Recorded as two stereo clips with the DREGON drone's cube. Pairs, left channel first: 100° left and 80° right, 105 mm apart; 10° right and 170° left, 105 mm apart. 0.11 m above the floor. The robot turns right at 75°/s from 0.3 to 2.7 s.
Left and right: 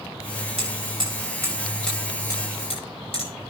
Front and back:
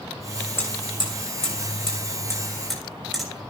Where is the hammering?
80° right, 8 m; by 3.5 s 80° left, 8 m.